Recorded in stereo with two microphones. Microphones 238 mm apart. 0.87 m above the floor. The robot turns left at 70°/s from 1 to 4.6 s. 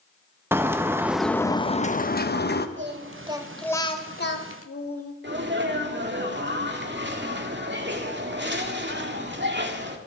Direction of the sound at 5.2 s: 50° right (ahead or behind).